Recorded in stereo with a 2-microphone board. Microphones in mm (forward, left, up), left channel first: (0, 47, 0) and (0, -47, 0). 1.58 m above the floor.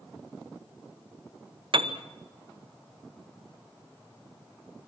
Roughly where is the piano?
Right.